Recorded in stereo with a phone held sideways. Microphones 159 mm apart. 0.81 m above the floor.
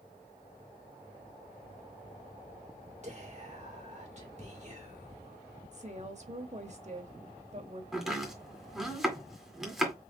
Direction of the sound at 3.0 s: 45° right (ahead or behind).